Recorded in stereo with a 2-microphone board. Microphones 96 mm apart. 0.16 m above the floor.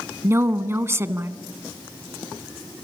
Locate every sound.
0.2 s a woman speaking: 30° right (ahead or behind), 1.2 m